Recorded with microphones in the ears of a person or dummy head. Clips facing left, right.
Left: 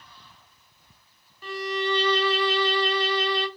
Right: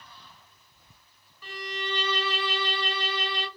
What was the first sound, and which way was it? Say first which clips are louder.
A violin: left 9 dB; 35° left (ahead or behind).